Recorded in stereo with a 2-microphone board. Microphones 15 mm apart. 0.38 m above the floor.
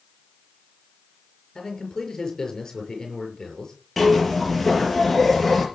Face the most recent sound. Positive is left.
turn(degrees=5)  # may be behind; listen again after turning